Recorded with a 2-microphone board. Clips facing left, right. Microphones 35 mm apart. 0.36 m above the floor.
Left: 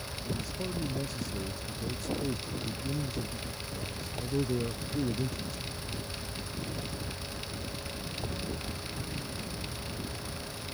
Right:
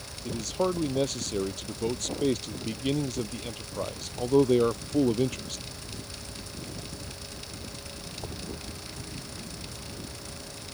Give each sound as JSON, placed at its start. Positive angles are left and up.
{"t": 0.2, "sound": "a man speaking", "side_deg": -80}